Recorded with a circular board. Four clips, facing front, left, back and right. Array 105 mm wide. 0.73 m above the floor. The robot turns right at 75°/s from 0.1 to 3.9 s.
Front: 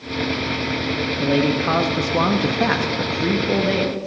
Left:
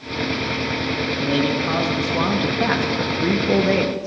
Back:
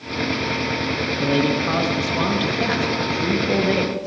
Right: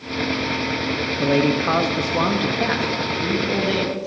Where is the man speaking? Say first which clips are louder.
Right 4 dB, front 1 dB; 95° right, 0.8 m; by 4.1 s 110° left, 0.8 m.